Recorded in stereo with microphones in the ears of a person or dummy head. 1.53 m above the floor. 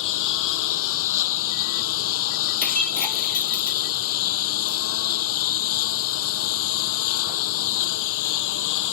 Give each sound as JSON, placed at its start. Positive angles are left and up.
{"t": 0.0, "sound": "a lawn mower", "side_deg": 75}
{"t": 2.6, "sound": "breaking glass", "side_deg": 10}